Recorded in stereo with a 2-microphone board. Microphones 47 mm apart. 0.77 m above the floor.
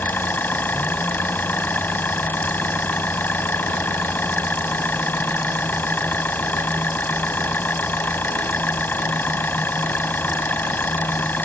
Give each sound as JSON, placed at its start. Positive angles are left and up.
{"t": 0.0, "sound": "an engine running", "side_deg": 45}